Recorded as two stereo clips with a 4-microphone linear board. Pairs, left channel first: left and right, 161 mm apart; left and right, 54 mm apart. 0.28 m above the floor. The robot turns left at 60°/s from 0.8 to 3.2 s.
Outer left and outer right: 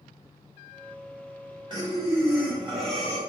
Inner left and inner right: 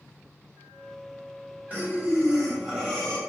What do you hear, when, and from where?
1.7 s breathing: 110° right, 1.3 m; by 3.2 s 160° left, 1.3 m